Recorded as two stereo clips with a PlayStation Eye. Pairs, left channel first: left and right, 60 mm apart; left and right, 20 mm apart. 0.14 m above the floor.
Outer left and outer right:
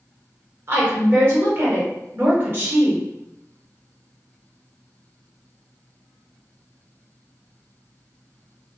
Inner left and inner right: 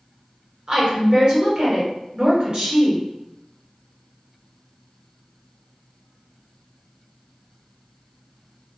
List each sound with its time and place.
0.7 s a woman speaking: 40° right (ahead or behind), 1.5 m